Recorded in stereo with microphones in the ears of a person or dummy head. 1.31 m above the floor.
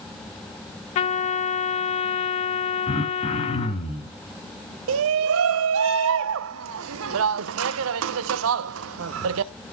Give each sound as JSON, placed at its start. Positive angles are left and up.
{"t": 0.9, "sound": "a trumpet", "side_deg": 30, "distance_m": 0.6}
{"t": 2.9, "sound": "throat clearing", "side_deg": 40, "distance_m": 4.0}
{"t": 4.9, "sound": "a shout", "side_deg": -75, "distance_m": 0.8}